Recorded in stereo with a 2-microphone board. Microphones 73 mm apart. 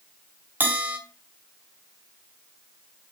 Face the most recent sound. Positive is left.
turn(degrees=-25)  # may be behind; listen again after turning